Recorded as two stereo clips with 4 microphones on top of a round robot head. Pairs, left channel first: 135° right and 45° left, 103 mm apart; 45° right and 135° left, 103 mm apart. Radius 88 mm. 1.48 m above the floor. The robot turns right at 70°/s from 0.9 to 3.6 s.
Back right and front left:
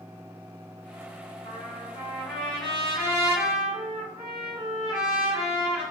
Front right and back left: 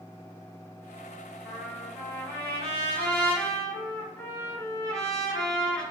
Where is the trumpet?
150° right, 1.3 m; by 5.8 s straight ahead, 1.3 m.